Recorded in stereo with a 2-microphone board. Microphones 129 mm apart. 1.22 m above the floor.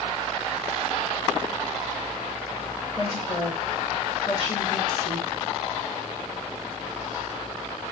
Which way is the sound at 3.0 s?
35° left (ahead or behind).